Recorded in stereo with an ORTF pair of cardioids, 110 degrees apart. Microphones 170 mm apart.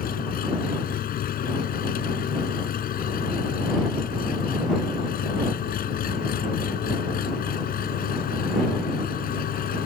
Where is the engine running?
60° left.